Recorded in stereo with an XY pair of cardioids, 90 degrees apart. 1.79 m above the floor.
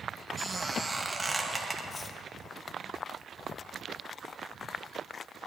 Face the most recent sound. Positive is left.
turn(degrees=35)